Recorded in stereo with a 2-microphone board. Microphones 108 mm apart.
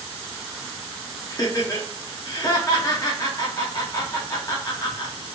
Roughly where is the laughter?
Left.